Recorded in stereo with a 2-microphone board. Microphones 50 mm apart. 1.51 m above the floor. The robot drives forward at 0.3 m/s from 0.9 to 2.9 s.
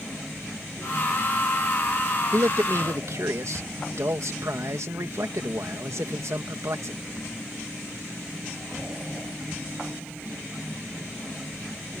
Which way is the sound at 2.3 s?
75° right (ahead or behind).